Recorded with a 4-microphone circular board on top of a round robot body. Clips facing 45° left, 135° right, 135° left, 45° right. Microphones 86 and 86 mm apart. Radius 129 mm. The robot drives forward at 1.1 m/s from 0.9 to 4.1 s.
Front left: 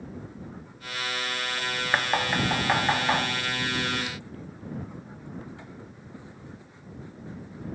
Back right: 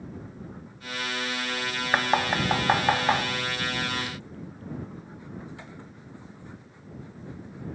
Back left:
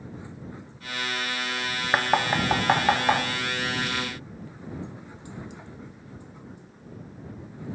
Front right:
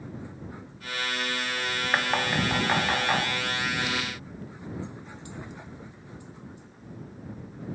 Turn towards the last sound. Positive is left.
turn(degrees=180)